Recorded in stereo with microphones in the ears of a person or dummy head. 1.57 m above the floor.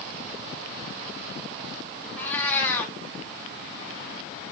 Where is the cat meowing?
10° left (ahead or behind), 1.6 m.